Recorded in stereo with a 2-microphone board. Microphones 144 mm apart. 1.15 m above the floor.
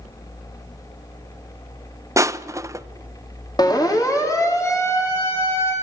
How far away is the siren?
About 2.5 m.